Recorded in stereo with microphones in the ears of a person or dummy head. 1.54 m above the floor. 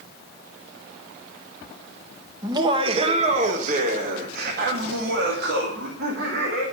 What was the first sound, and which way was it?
Laughter, 25° right (ahead or behind).